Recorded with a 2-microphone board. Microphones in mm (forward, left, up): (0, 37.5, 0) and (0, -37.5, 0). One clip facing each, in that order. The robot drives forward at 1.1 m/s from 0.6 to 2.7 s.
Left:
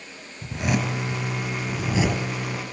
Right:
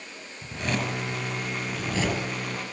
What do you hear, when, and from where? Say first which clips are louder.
0.4 s a zipper: left 4 dB; 10° left (ahead or behind), 6 m; by 2.2 s 5° left (ahead or behind), 8 m